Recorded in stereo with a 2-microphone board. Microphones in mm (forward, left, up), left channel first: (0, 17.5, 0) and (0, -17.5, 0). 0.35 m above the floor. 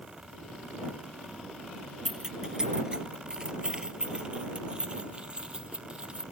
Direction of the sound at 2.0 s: 20° right (ahead or behind).